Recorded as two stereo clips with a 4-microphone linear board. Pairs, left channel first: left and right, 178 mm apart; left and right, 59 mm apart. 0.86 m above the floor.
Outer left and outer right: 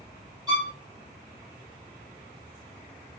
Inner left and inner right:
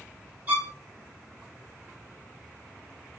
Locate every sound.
0.5 s a violin: 25° right (ahead or behind), 1.4 m